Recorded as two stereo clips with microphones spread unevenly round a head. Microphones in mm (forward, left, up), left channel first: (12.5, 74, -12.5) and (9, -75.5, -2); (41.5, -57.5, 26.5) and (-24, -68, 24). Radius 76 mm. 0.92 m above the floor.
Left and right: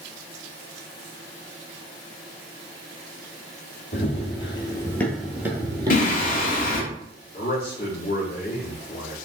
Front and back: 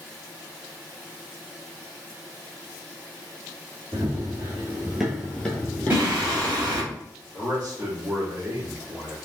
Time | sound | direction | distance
3.9 | running footsteps | 135° left | 1.5 m
5.9 | singing | 115° left | 1.0 m
7.3 | a man speaking | 145° left | 2 m